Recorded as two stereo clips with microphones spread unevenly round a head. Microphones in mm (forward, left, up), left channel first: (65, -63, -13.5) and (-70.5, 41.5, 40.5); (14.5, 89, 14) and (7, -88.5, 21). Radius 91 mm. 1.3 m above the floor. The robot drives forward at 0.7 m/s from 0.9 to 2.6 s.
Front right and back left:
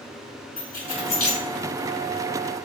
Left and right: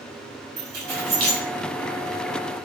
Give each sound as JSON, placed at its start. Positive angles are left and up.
{"t": 0.6, "sound": "keys jangling", "azimuth_deg": -55, "distance_m": 2.0}